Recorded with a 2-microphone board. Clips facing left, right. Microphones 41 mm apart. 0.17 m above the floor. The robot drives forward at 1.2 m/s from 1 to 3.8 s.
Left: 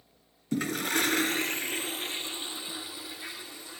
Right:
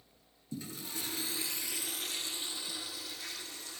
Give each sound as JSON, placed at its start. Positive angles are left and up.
{"t": 0.5, "sound": "a toilet flushing", "side_deg": 70, "distance_m": 0.9}